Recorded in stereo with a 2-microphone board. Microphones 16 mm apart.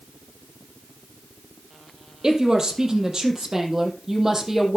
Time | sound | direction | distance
2.2 | a woman speaking | 40° right (ahead or behind) | 3 m